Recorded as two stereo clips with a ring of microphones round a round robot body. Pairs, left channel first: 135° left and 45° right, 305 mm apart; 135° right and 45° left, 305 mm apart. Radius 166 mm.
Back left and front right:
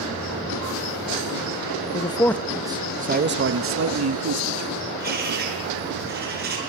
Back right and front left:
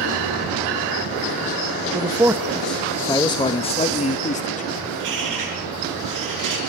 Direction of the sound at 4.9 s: 15° left.